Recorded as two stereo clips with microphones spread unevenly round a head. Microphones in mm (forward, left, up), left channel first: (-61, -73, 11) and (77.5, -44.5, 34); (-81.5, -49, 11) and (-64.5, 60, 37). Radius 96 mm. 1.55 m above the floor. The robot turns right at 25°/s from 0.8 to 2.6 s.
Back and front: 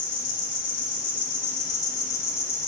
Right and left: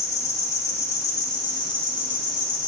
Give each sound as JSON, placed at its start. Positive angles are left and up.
{"t": 0.0, "sound": "an insect", "azimuth_deg": -140, "distance_m": 0.7}